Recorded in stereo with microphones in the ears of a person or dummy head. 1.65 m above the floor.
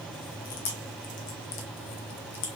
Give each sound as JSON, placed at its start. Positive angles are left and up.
{"t": 0.5, "sound": "chewing", "side_deg": 50, "distance_m": 1.3}